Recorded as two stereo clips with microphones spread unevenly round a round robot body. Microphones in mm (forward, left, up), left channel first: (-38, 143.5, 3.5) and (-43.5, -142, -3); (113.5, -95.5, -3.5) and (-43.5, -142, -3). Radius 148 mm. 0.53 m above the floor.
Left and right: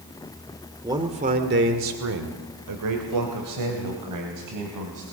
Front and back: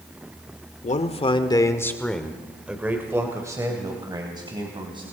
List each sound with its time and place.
0.8 s a man speaking: 15° right, 1.6 m; by 5.0 s 105° right, 4 m